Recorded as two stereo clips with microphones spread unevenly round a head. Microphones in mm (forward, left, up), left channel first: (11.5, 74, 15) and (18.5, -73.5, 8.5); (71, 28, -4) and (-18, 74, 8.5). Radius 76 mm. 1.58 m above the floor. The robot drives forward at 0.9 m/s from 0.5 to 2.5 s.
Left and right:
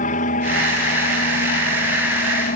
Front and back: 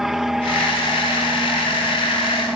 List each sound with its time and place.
0.0 s an aircraft: 65° left; by 2.6 s 70° left